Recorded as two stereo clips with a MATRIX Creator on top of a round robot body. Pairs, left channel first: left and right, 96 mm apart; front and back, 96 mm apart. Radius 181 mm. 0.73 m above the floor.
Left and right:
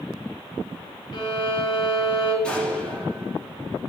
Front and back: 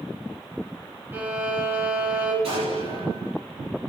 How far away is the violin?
About 5 m.